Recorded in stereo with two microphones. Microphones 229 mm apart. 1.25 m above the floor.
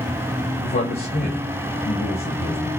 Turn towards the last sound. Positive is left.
turn(degrees=60)  # may be behind; listen again after turning